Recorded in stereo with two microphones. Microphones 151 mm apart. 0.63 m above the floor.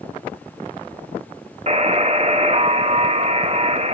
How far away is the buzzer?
About 0.8 m.